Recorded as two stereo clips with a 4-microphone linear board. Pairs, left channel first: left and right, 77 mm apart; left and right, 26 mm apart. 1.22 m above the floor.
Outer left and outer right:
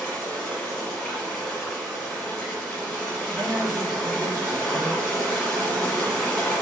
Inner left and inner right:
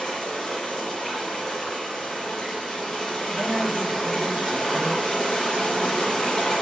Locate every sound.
0.0 s running water: 15° left (ahead or behind), 1.5 m
3.3 s a man speaking: 35° right (ahead or behind), 0.8 m